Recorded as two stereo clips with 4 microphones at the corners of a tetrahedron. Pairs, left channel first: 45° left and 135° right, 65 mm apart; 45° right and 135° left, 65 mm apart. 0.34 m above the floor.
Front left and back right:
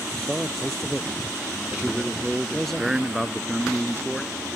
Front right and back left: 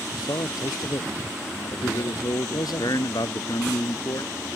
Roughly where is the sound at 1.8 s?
Ahead right.